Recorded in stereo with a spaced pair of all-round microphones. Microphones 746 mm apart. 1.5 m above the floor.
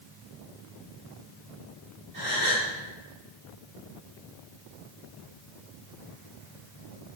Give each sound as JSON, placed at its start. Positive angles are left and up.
{"t": 2.1, "sound": "a gasp", "side_deg": -15, "distance_m": 3.5}